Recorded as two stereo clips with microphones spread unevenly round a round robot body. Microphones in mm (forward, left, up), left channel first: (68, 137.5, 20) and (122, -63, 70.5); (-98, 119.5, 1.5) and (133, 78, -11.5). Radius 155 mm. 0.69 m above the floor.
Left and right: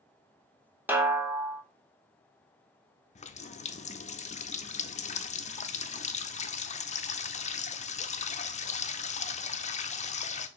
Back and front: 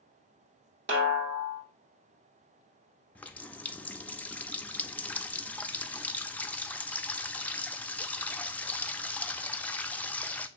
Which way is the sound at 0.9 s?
15° left.